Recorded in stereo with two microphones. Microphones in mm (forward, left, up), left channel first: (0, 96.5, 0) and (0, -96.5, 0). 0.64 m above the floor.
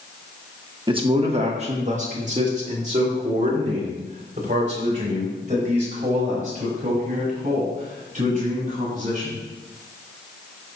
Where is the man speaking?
25° right (ahead or behind), 1.1 m; by 9.4 s 40° right (ahead or behind), 7.5 m.